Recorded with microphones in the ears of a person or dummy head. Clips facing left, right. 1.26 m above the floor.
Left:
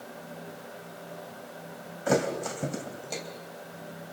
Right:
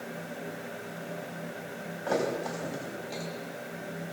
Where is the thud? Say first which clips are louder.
Left 3 dB; 50° left (ahead or behind), 3.5 m.